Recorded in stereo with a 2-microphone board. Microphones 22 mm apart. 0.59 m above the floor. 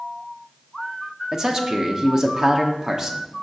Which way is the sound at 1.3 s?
25° right (ahead or behind).